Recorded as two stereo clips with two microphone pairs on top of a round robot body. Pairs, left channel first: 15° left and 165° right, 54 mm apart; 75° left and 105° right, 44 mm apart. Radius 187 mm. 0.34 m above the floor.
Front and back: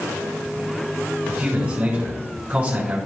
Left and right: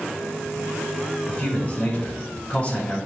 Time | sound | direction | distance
1.3 | a man speaking | 135° left | 4 m